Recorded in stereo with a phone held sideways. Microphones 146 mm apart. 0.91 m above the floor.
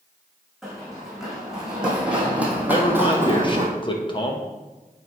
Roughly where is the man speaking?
Left.